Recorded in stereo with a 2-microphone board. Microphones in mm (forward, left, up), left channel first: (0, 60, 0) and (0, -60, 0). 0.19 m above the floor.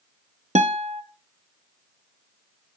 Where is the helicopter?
No helicopter in this recording.